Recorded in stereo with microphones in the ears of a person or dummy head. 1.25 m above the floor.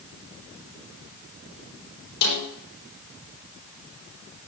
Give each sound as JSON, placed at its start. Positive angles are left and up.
{"t": 2.2, "sound": "a snare drum", "side_deg": 60, "distance_m": 5.0}